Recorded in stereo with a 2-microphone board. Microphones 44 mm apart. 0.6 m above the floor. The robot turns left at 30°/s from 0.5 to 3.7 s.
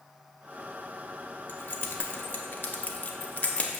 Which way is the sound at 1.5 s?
50° left (ahead or behind).